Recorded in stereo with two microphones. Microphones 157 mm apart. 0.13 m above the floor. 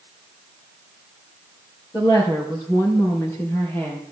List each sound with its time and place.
1.9 s a woman speaking: 25° left (ahead or behind), 3.5 m; by 4.0 s 15° left (ahead or behind), 4 m